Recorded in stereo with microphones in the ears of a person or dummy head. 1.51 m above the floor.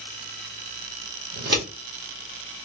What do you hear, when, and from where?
1.3 s scissors: 55° right (ahead or behind), 1.6 m